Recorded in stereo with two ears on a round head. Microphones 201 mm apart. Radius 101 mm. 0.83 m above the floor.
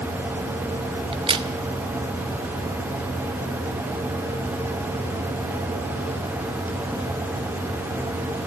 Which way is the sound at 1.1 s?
20° right (ahead or behind).